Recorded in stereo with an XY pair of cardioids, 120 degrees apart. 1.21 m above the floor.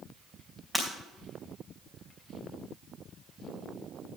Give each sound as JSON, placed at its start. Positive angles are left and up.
{"t": 0.7, "sound": "breaking glass", "azimuth_deg": -5, "distance_m": 3.5}